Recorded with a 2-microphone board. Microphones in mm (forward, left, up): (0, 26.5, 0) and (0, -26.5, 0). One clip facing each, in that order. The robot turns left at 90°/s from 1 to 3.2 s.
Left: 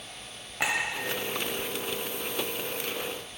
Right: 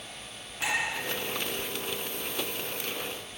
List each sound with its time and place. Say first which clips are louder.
0.6 s a clink: left 2 dB; 65° left (ahead or behind), 1.3 m